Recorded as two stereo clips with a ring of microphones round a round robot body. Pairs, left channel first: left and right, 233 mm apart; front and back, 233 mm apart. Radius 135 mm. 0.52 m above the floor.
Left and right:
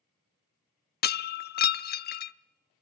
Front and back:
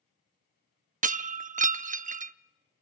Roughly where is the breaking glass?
Behind left.